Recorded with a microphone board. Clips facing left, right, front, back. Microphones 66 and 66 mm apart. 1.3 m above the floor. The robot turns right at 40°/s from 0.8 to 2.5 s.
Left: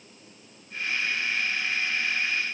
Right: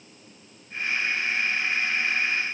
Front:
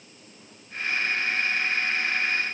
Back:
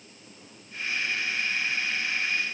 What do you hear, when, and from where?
Only background noise.